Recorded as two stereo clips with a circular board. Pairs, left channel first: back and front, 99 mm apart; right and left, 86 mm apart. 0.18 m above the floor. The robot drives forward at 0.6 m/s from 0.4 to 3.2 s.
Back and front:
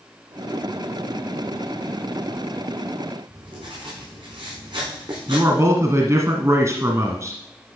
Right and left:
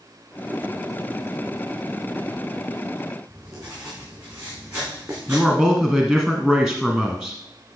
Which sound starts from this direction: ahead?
A man speaking, at 5.3 s.